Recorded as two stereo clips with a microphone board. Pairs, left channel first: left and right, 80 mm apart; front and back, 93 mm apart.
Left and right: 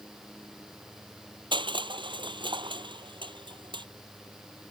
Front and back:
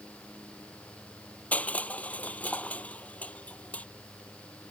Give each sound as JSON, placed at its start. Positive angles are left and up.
{"t": 1.5, "sound": "crushing", "azimuth_deg": -75}